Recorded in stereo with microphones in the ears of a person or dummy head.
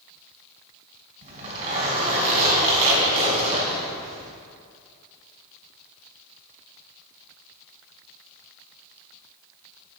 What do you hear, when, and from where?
1.2 s a zipper: 45° right (ahead or behind), 2.5 m